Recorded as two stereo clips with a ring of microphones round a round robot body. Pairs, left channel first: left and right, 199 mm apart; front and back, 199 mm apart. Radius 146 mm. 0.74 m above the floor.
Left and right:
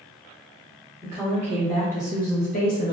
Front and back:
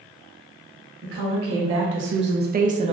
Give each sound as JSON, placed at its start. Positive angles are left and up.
{"t": 1.0, "sound": "a woman speaking", "azimuth_deg": -165, "distance_m": 1.1}